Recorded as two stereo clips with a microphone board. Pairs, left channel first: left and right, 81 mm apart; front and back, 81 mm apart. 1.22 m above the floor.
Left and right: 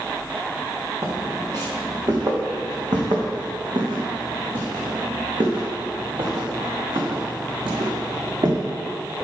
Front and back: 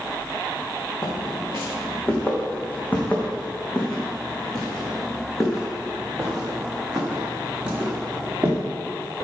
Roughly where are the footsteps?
Ahead right.